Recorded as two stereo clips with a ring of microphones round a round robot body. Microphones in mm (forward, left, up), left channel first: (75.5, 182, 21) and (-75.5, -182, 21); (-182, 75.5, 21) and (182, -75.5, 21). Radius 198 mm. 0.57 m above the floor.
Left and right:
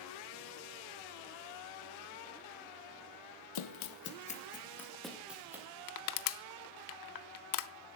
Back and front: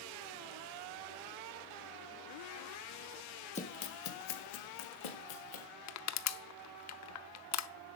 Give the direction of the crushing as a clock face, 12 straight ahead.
8 o'clock.